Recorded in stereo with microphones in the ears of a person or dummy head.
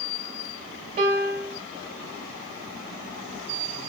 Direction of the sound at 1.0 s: 40° right (ahead or behind).